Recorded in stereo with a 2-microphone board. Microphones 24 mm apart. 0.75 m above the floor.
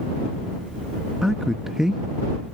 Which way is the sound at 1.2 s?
20° right (ahead or behind).